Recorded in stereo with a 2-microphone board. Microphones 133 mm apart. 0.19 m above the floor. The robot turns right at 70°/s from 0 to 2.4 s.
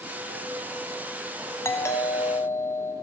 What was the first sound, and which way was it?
A doorbell, 20° left (ahead or behind).